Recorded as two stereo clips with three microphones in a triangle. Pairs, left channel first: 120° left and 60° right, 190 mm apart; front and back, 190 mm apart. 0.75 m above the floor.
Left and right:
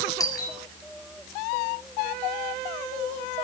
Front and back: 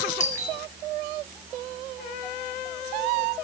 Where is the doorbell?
50° left, 4.5 m.